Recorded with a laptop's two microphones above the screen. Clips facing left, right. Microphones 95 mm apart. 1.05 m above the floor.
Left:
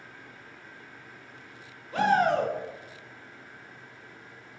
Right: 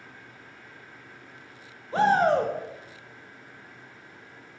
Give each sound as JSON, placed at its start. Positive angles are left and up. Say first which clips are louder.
{"t": 1.9, "sound": "a shout", "louder": "right 2 dB", "side_deg": -30, "distance_m": 0.9}